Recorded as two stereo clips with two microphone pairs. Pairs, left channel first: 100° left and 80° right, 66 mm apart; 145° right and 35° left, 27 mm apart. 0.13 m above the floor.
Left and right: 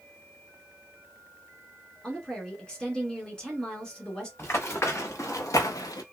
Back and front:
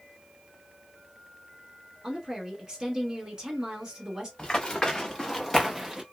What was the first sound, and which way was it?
A woman speaking, 40° left.